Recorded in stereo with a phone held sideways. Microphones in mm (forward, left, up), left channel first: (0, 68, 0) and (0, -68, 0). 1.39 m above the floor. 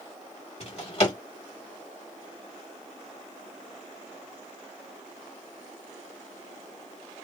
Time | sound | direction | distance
0.6 | a drawer | 50° left (ahead or behind) | 1.4 m